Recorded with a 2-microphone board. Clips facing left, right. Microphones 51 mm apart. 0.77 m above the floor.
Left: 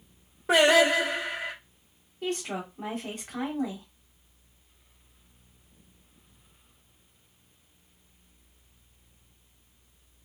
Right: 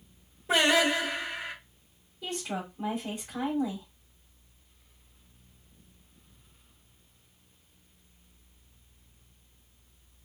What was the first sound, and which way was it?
Singing, 70° left (ahead or behind).